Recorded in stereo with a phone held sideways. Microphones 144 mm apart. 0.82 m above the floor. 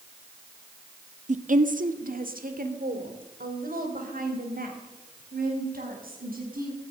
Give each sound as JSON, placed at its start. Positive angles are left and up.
{"t": 1.3, "sound": "a woman speaking", "side_deg": -55, "distance_m": 1.0}